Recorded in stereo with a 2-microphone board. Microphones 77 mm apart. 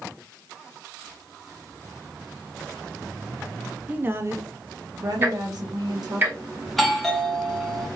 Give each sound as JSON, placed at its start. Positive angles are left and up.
{"t": 3.9, "sound": "a woman speaking", "side_deg": -20, "distance_m": 0.5}
{"t": 5.2, "sound": "ticking", "side_deg": -25, "distance_m": 1.0}
{"t": 6.7, "sound": "a doorbell", "side_deg": 0, "distance_m": 0.8}